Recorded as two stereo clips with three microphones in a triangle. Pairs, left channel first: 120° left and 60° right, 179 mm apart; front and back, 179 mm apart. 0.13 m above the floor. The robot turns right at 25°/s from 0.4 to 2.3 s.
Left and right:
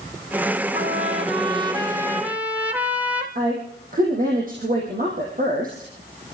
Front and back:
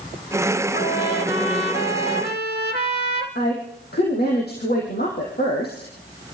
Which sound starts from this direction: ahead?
A trumpet, at 0.7 s.